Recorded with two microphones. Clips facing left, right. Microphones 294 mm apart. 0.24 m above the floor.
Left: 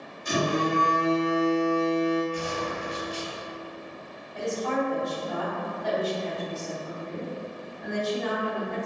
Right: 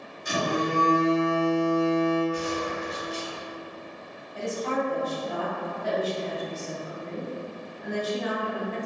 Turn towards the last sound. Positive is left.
turn(degrees=-5)  # may be behind; listen again after turning